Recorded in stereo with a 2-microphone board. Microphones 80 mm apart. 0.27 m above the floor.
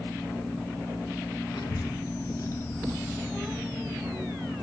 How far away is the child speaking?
About 1.2 m.